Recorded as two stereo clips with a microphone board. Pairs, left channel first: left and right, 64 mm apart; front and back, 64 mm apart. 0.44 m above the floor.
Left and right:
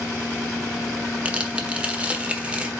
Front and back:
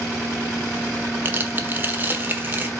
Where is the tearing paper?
150° right, 1.3 m.